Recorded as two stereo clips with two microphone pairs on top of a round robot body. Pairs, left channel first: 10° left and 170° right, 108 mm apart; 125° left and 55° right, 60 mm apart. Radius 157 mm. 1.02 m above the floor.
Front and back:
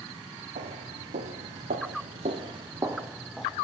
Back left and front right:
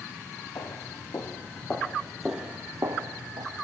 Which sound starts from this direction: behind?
Footsteps, at 0.6 s.